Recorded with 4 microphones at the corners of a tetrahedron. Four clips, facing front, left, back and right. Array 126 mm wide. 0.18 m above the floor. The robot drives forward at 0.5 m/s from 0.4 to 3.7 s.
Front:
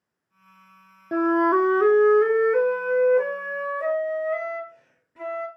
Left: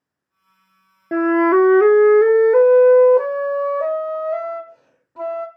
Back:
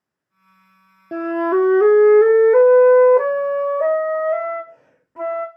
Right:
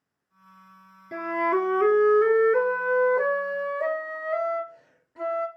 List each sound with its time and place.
1.1 s a flute: 90° left, 0.5 m; by 5.5 s 155° left, 1.4 m